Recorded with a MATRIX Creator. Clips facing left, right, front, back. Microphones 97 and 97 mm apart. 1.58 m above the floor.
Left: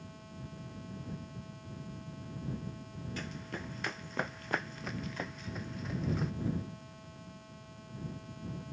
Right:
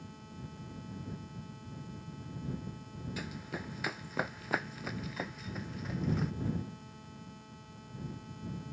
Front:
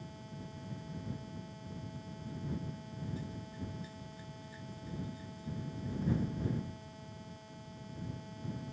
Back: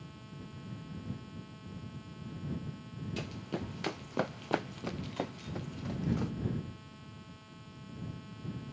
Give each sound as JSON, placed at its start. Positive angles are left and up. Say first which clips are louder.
{"t": 3.2, "sound": "running footsteps", "louder": "even, back 5 dB", "azimuth_deg": -175}